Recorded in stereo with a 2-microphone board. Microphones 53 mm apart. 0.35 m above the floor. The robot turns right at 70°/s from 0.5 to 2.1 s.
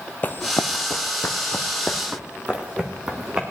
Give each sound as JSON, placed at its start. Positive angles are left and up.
{"t": 0.2, "sound": "running footsteps", "side_deg": 35, "distance_m": 0.7}